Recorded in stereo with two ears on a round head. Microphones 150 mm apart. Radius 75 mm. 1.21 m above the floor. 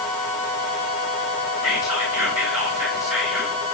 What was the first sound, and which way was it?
Whispering, 5° right (ahead or behind).